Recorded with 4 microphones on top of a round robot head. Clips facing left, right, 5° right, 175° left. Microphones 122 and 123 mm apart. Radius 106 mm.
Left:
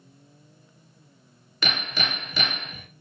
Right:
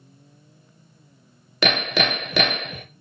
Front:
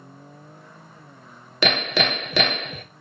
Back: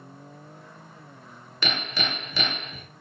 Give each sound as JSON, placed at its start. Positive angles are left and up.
{"t": 1.6, "sound": "hammering", "azimuth_deg": -50, "distance_m": 0.6}